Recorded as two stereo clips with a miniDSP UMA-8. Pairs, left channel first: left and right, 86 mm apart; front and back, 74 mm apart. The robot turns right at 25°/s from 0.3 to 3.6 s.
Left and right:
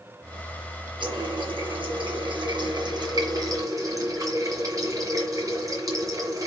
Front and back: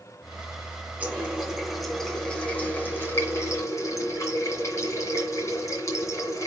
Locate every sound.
1.0 s a running tap: 110° right, 2.5 m; by 6.5 s 45° right, 2.5 m